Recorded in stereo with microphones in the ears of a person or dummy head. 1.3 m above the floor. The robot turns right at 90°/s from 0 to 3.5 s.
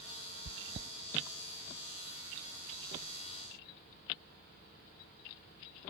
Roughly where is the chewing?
Right.